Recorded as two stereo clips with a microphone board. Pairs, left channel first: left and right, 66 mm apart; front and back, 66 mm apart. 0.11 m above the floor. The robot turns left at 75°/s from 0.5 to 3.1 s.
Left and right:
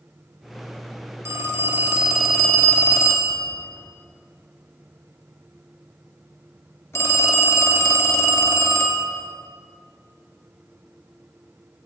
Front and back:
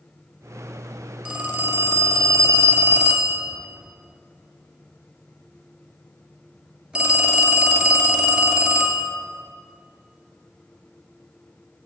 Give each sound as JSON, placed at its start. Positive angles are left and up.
{"t": 1.2, "sound": "a phone ringing", "azimuth_deg": -110, "distance_m": 1.0}